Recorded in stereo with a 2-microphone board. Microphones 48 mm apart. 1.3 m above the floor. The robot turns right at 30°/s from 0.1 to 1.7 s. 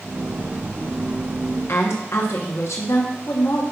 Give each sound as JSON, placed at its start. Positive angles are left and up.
{"t": 1.7, "sound": "a woman speaking", "side_deg": 70, "distance_m": 0.9}